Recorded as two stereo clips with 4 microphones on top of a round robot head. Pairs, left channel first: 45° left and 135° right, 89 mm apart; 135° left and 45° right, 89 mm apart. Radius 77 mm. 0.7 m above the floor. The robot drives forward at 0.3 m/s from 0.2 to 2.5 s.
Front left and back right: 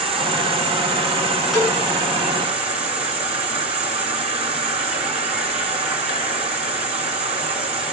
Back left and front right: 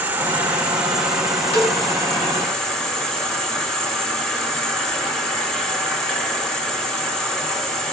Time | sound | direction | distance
0.0 | an insect | 115° right | 1.1 m
1.5 | a cowbell | 140° left | 6 m